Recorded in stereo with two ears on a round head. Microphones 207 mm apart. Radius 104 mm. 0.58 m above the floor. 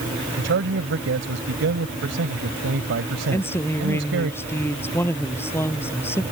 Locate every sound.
0.4 s a man speaking: 55° right (ahead or behind)
3.3 s a woman speaking: 10° left (ahead or behind)